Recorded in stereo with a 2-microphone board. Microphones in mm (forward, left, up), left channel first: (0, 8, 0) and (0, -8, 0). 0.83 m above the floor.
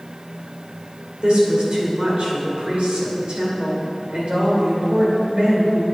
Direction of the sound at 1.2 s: 75° right (ahead or behind).